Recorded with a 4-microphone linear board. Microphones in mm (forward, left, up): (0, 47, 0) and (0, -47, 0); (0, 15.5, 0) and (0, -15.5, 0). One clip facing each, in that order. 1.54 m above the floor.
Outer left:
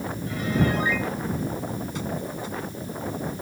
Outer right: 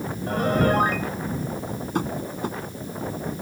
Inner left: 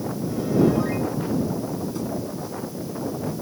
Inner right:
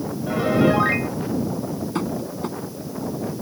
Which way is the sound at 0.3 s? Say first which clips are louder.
Outer right 4 dB, inner right 2 dB; 55° right (ahead or behind).